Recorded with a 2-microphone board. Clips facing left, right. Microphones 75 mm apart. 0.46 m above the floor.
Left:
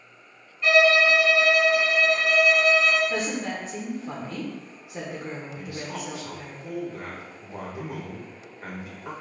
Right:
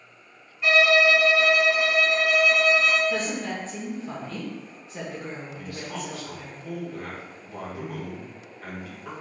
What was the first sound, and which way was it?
A violin, 5° right (ahead or behind).